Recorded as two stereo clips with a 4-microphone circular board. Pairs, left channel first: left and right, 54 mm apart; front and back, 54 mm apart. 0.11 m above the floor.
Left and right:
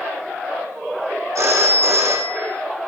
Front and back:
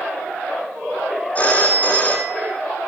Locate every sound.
1.4 s a phone ringing: 65° right, 4.5 m